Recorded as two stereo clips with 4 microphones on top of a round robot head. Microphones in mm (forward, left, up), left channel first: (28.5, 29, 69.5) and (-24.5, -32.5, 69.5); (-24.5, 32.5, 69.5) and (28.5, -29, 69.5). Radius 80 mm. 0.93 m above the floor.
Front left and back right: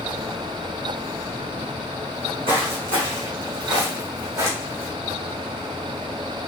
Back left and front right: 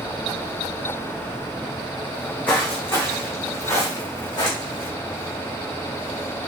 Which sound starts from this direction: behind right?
Footsteps, at 2.1 s.